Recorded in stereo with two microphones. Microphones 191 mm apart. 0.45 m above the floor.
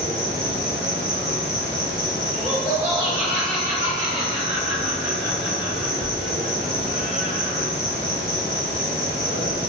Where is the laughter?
35° right (ahead or behind), 1.7 m.